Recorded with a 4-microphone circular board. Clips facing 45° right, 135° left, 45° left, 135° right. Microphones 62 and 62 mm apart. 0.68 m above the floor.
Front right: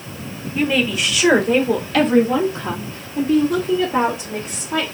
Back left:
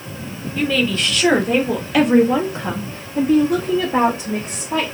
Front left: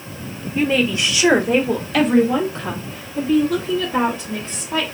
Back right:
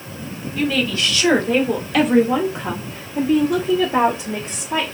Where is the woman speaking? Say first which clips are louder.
Even, front left 2 dB; 10° left, 1.2 m; by 4.9 s 175° left, 1.9 m.